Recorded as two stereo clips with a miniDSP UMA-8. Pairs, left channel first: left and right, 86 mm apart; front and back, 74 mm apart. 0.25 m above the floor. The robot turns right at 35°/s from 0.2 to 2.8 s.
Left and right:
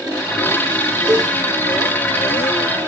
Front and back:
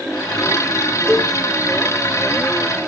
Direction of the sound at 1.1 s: 130° right.